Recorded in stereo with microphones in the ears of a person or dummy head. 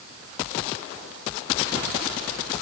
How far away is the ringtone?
I don't hear a ringtone.